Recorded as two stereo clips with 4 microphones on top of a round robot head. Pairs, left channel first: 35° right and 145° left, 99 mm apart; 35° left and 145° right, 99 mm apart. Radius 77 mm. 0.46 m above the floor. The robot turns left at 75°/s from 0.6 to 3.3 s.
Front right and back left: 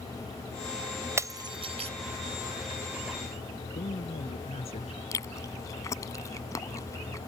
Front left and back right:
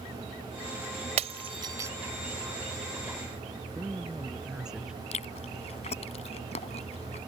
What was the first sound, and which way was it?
Breaking glass, 155° right.